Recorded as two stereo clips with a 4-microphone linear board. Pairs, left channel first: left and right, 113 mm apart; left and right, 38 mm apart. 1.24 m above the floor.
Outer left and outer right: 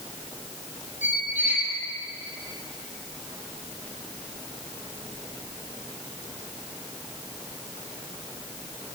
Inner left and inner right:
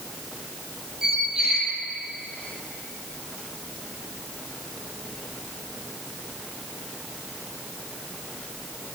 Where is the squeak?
15° right (ahead or behind), 3.5 m.